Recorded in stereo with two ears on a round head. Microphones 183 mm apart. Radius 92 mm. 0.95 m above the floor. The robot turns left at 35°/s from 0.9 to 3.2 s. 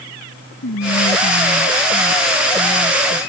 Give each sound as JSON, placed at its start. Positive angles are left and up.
{"t": 0.6, "sound": "whispering", "azimuth_deg": 60}